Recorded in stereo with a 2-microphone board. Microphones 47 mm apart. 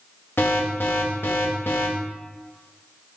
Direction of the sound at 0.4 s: 55° left (ahead or behind).